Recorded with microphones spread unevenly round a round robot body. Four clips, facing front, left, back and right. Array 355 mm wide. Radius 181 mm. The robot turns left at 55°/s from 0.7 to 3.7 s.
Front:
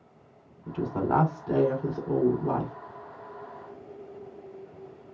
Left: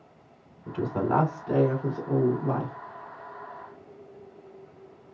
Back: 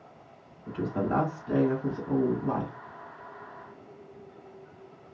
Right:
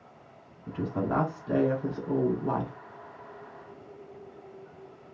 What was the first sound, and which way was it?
A woman speaking, 70° left.